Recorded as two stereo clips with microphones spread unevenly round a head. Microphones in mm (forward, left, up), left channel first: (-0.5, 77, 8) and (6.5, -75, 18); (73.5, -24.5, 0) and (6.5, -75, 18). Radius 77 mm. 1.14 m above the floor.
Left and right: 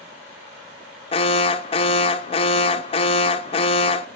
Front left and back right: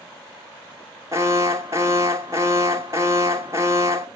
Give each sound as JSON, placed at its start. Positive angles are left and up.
{"t": 1.1, "sound": "an alarm", "azimuth_deg": 150, "distance_m": 0.8}